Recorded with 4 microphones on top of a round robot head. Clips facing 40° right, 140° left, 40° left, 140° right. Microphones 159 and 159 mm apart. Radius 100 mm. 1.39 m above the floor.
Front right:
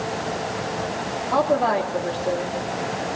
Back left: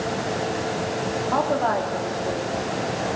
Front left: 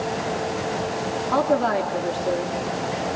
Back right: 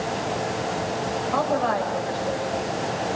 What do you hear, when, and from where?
1.3 s a woman speaking: 35° left, 3 m; by 2.5 s 25° left, 3 m